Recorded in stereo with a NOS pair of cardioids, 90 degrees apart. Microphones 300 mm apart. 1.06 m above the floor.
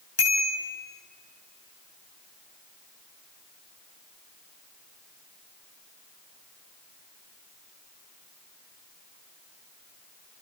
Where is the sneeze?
No sneeze in this recording.